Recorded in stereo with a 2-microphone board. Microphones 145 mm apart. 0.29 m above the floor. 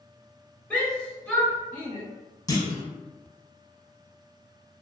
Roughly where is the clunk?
Left.